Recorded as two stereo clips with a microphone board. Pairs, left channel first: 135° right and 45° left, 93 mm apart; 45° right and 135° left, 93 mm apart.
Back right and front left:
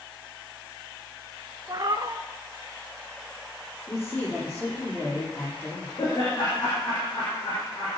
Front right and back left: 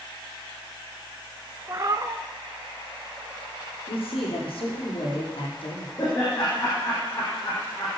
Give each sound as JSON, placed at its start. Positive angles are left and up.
{"t": 1.7, "sound": "a cat meowing", "azimuth_deg": 85, "distance_m": 0.6}
{"t": 3.9, "sound": "a man speaking", "azimuth_deg": -65, "distance_m": 5.5}
{"t": 6.0, "sound": "laughter", "azimuth_deg": -95, "distance_m": 6.0}